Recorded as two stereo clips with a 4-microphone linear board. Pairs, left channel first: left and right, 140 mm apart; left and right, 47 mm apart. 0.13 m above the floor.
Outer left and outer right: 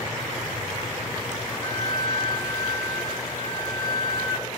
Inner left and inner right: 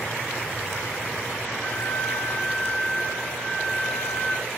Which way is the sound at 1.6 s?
25° left (ahead or behind).